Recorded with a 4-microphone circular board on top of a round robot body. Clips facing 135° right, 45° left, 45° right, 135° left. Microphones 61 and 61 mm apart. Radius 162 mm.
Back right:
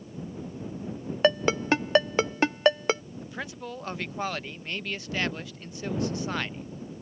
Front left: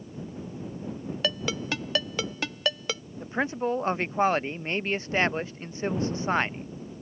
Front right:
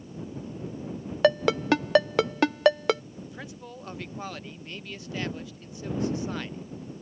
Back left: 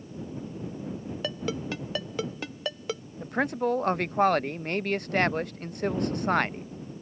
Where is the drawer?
I don't hear a drawer.